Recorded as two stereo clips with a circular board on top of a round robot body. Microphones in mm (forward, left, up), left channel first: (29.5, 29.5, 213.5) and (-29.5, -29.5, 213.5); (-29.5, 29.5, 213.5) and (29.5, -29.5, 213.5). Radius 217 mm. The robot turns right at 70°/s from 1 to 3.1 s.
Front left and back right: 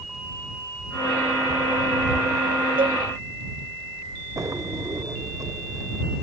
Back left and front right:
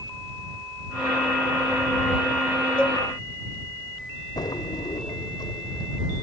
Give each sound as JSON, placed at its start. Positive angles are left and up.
{"t": 2.8, "sound": "a cowbell", "azimuth_deg": -145}
{"t": 4.4, "sound": "a drawer", "azimuth_deg": 175}